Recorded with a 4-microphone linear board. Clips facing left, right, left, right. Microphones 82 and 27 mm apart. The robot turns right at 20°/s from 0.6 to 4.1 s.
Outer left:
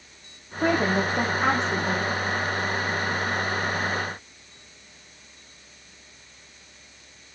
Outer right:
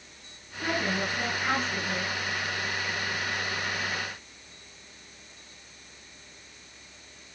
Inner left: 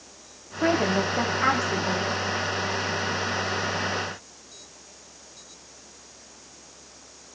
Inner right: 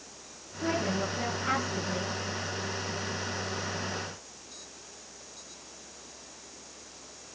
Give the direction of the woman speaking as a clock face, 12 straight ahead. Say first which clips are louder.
Outer left 7 dB, inner left 7 dB; 10 o'clock.